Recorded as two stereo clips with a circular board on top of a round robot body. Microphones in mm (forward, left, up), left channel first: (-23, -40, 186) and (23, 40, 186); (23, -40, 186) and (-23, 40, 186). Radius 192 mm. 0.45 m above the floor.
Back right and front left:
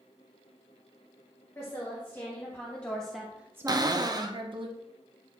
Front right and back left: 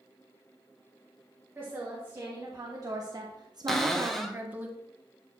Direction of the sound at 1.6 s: Straight behind.